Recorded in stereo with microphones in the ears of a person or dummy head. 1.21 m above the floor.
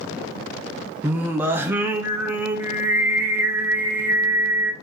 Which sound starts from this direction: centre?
Singing, at 1.0 s.